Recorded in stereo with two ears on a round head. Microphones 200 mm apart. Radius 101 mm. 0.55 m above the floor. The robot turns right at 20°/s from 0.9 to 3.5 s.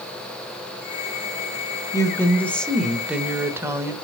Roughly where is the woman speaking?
Behind.